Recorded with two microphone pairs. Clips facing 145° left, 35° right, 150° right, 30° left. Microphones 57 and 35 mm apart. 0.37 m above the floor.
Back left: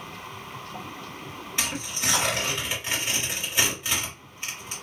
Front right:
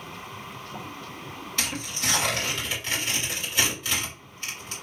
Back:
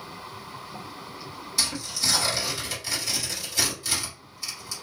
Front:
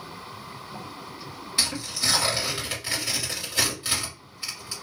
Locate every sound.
1.6 s tearing paper: 75° left, 1.9 m